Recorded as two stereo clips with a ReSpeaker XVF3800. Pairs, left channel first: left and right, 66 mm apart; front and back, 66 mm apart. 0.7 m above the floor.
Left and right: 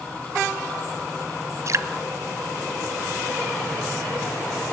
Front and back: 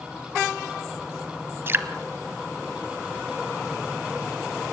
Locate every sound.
1.7 s dripping: 125° right, 1.1 m